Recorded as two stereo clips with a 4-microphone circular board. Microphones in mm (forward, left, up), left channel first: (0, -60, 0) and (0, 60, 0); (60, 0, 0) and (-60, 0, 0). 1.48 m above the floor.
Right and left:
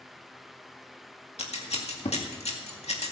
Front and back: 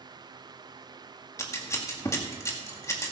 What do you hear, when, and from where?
1.4 s scissors: 65° right, 2 m